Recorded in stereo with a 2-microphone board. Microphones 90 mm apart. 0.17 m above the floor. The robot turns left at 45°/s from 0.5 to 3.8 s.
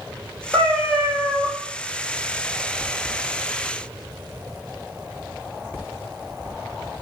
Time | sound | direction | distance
0.5 | a cat meowing | 25° left | 1.5 m